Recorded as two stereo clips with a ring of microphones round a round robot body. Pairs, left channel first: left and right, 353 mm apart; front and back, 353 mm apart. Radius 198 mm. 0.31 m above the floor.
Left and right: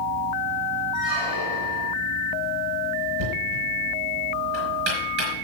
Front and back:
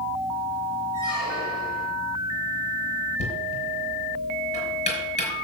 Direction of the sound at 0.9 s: 115° right.